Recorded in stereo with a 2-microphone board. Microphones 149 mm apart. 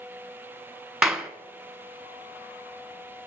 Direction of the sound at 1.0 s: 5° right (ahead or behind).